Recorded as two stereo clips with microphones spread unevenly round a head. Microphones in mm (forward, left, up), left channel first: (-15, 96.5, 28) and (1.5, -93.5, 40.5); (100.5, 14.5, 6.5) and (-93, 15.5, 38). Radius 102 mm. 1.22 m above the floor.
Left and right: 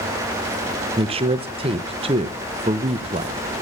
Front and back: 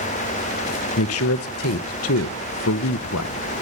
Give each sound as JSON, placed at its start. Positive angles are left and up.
{"t": 1.0, "sound": "a man speaking", "azimuth_deg": -20, "distance_m": 0.6}